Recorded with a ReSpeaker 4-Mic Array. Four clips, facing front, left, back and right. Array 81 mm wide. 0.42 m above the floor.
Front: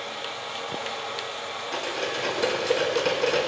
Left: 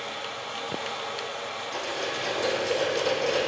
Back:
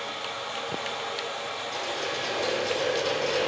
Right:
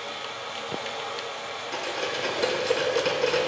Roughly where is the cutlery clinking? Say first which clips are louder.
Right 2 dB, front 3 dB; ahead right.